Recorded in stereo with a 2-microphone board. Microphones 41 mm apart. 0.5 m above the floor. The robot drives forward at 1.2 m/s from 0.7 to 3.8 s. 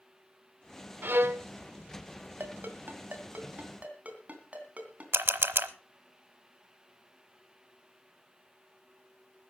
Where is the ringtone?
60° right (ahead or behind), 2 m; by 5.0 s 35° right (ahead or behind), 3 m.